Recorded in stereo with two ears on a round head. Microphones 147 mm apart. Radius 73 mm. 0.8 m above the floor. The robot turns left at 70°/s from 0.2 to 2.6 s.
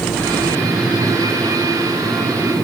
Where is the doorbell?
I don't hear a doorbell.